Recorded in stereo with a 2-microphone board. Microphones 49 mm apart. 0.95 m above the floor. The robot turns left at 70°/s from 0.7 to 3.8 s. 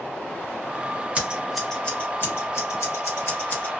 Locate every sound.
1.1 s scissors: 30° right (ahead or behind), 0.9 m; by 3.7 s 30° left (ahead or behind), 0.9 m